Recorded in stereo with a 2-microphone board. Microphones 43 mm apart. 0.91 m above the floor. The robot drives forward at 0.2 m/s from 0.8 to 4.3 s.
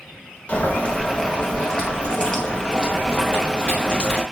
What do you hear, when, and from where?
0.5 s boiling: 30° left (ahead or behind), 0.9 m; by 4.2 s 20° left (ahead or behind), 1.5 m